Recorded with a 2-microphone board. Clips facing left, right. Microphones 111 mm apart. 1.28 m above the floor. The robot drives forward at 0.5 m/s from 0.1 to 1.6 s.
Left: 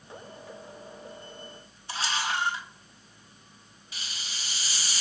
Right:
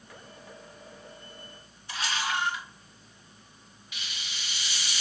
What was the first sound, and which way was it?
A camera shutter, 30° left (ahead or behind).